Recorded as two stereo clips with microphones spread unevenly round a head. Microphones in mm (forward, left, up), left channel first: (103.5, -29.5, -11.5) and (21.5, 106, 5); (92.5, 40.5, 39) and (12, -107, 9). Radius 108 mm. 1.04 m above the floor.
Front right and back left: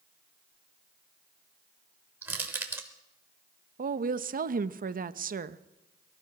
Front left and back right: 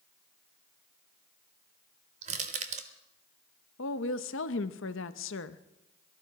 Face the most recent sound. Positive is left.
turn(degrees=90)